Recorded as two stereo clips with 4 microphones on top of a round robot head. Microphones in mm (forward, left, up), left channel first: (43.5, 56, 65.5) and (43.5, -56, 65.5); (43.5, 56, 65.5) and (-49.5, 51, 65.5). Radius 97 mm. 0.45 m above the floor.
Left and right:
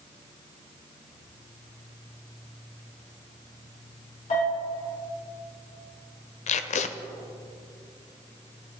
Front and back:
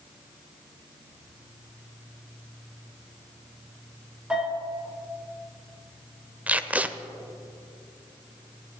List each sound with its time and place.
4.3 s a bell: 105° left, 5 m
6.5 s tape being pulled: 105° left, 0.7 m